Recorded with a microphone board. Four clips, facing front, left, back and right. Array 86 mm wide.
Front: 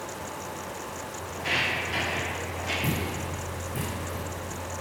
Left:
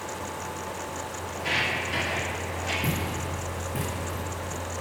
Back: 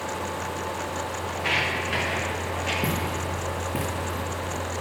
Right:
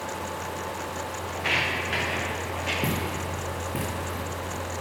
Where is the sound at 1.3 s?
120° right, 2.0 m; by 2.7 s 125° right, 3 m.